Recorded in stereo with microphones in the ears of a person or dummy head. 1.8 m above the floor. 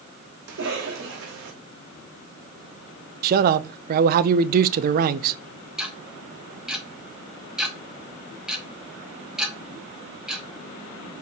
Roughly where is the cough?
Right.